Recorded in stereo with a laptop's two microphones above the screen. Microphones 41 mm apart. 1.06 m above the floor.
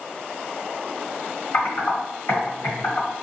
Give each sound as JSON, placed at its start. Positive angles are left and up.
{"t": 1.5, "sound": "typing on a keyboard", "side_deg": 75, "distance_m": 1.4}